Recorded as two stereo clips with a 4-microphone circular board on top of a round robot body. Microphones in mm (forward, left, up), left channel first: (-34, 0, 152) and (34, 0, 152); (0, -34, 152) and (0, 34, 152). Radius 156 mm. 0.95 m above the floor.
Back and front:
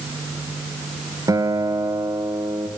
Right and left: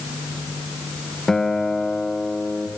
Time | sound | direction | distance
1.3 | a guitar | 10° right | 1.2 m